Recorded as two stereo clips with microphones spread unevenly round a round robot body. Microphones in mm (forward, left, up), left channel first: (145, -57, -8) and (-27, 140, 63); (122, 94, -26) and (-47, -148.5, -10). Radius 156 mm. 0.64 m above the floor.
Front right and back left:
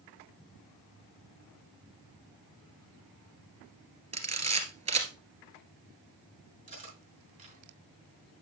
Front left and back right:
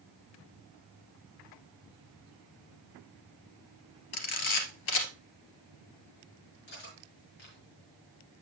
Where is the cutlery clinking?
70° left, 4.5 m.